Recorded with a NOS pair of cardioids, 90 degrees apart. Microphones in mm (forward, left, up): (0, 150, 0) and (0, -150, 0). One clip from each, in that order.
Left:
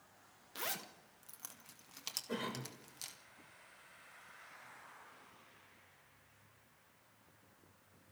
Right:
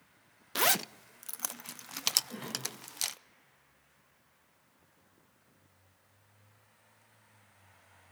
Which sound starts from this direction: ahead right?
A zipper, at 0.6 s.